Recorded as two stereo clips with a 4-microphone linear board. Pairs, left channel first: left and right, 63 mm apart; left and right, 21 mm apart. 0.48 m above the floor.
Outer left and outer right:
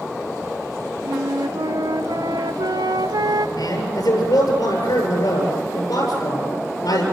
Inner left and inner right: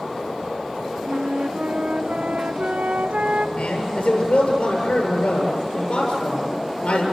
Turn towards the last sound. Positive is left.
turn(degrees=75)  # may be behind; listen again after turning